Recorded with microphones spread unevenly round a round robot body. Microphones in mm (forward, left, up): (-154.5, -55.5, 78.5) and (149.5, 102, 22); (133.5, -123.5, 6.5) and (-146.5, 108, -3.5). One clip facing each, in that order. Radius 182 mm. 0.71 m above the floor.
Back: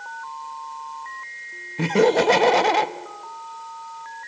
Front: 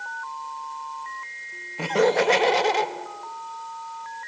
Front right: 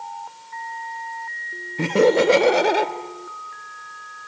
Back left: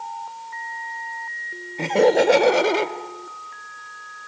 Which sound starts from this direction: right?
Laughter, at 1.8 s.